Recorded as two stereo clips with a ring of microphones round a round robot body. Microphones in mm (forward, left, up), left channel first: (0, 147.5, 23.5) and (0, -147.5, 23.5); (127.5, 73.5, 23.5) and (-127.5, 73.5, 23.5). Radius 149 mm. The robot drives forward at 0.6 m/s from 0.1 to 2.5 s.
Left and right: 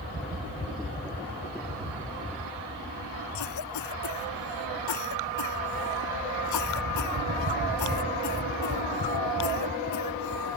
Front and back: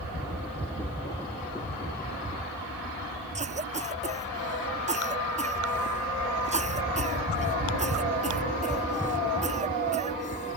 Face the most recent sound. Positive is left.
turn(degrees=120)